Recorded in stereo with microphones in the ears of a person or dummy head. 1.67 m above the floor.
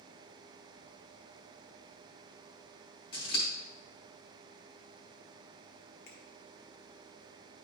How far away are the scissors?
About 1.6 m.